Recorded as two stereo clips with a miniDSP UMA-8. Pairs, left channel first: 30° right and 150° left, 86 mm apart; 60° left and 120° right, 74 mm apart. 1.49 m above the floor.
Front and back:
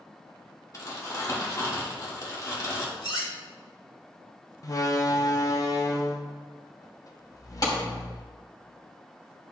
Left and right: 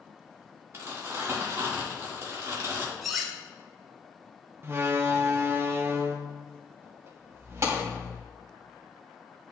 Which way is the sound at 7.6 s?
70° right.